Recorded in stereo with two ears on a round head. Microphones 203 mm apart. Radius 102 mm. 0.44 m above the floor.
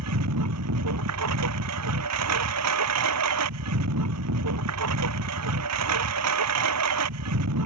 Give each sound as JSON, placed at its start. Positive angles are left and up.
{"t": 0.0, "sound": "a lawn mower", "side_deg": -85}